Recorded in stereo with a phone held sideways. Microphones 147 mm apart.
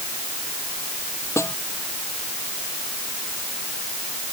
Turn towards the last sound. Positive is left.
turn(degrees=15)  # may be behind; listen again after turning